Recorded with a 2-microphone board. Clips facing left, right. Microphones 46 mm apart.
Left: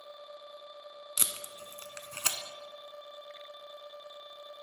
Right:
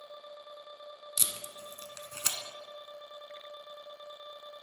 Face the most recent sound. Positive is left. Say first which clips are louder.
# left 1 dB
turn(degrees=35)  # may be behind; listen again after turning